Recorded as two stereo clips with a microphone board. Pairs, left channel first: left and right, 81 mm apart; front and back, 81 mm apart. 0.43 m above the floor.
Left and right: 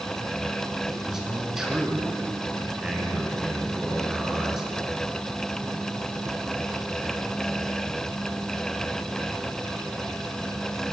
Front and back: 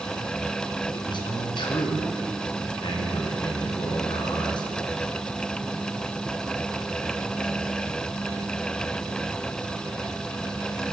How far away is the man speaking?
About 5.5 m.